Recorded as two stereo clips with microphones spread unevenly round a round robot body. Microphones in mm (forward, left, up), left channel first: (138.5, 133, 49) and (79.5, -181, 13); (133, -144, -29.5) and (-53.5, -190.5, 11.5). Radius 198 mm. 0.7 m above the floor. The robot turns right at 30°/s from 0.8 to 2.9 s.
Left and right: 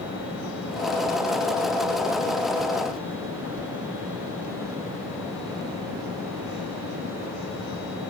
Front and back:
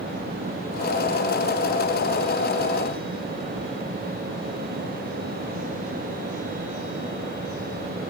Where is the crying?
I don't hear crying.